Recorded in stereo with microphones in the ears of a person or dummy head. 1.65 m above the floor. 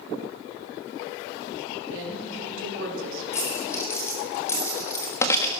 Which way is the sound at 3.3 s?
15° left (ahead or behind).